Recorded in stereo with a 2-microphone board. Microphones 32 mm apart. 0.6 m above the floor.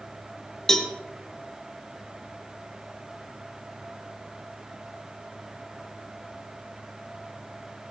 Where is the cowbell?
15° left (ahead or behind), 1.6 m.